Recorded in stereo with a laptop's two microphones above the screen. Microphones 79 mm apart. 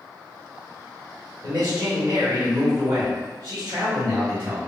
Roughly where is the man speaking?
Right.